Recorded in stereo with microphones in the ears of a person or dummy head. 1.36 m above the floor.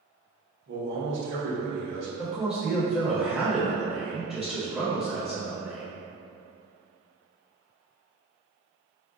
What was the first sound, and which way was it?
A man speaking, 60° right (ahead or behind).